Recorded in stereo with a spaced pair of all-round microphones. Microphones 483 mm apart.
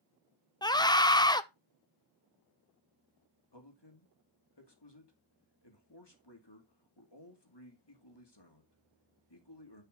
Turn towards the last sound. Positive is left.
turn(degrees=55)  # may be behind; listen again after turning